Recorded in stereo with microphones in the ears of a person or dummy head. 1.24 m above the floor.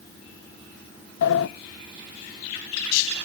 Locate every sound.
1.2 s a sliding door: 60° left (ahead or behind), 0.5 m